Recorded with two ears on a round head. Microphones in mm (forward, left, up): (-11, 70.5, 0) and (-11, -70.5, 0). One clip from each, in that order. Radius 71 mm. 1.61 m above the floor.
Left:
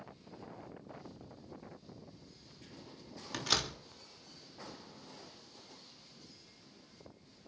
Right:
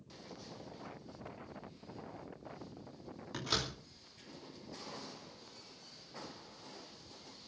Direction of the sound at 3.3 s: 65° left (ahead or behind).